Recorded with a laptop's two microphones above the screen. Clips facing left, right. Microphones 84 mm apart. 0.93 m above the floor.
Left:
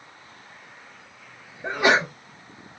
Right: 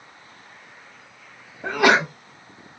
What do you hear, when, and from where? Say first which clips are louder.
1.6 s a sneeze: right 3 dB; 60° right (ahead or behind), 1.5 m